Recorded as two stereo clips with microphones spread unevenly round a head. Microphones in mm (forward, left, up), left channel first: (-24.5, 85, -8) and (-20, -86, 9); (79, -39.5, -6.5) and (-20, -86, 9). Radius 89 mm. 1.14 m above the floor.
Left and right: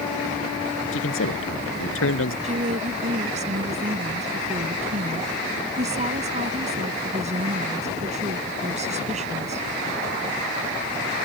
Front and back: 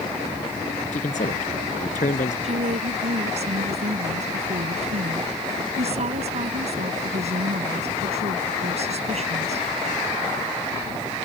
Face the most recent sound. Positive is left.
turn(degrees=-140)